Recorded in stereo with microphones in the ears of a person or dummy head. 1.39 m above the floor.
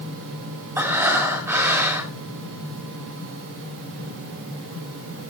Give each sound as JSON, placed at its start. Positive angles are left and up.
{"t": 0.8, "sound": "breathing", "side_deg": -15, "distance_m": 2.5}